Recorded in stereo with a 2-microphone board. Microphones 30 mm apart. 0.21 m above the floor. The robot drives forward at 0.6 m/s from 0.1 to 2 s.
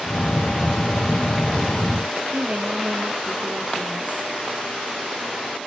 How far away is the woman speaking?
About 5 m.